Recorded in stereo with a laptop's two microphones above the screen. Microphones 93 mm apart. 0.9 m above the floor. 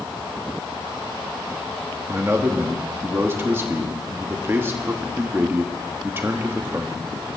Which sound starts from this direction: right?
A man speaking, at 2.1 s.